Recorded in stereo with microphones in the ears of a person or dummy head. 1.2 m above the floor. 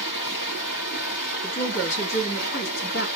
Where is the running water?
60° left (ahead or behind), 1.8 m.